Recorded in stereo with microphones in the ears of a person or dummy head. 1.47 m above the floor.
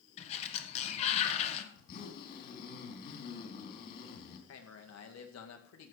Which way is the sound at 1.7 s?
50° left (ahead or behind).